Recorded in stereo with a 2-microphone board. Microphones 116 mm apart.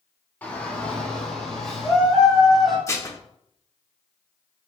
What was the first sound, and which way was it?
A shout, 15° left (ahead or behind).